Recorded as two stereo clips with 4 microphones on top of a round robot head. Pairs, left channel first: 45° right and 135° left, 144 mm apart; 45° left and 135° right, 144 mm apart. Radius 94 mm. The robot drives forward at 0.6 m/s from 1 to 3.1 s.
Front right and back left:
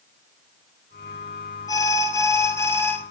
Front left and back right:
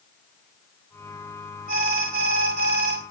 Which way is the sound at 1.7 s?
110° right.